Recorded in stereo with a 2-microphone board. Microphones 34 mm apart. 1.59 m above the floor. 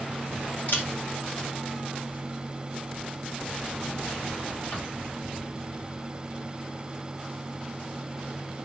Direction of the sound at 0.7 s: 60° left (ahead or behind).